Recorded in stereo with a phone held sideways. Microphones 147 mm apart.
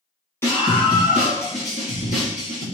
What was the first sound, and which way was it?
A scream, 15° left (ahead or behind).